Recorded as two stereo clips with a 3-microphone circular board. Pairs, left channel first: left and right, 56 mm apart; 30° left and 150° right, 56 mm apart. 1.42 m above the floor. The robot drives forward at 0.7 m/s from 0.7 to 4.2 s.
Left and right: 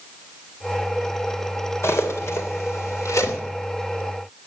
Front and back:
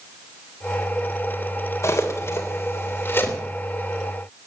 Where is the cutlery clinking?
55° left, 3 m; by 3.4 s 75° left, 2.5 m.